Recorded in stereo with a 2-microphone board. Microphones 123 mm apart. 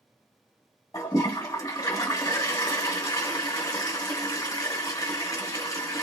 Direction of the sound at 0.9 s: 25° left (ahead or behind).